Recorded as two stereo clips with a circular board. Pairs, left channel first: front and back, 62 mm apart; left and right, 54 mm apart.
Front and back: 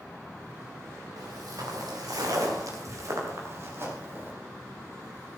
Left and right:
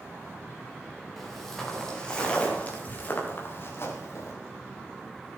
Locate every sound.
1.2 s footsteps: straight behind, 5 m; by 4.3 s 125° left, 4.5 m